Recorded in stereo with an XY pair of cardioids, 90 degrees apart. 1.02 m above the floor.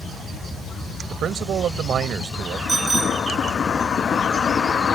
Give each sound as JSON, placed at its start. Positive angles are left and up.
{"t": 1.1, "sound": "a man speaking", "azimuth_deg": -70}
{"t": 2.7, "sound": "a bicycle bell", "azimuth_deg": -30}